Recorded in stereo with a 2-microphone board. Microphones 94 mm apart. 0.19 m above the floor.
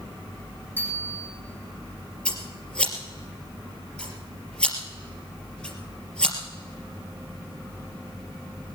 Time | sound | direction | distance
0.8 | a bicycle bell | 20° left (ahead or behind) | 5.5 m
2.2 | scissors | 10° left (ahead or behind) | 3.5 m